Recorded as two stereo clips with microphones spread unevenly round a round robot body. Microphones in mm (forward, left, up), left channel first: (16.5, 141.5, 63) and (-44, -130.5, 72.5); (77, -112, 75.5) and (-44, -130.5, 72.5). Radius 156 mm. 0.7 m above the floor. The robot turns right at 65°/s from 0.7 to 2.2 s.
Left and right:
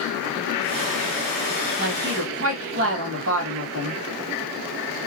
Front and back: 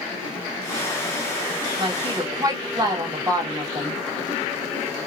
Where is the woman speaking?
150° right, 1.3 m; by 4.0 s 120° right, 1.3 m.